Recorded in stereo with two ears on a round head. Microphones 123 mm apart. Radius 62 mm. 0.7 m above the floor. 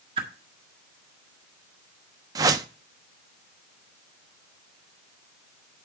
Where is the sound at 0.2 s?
40° right (ahead or behind), 1.6 m.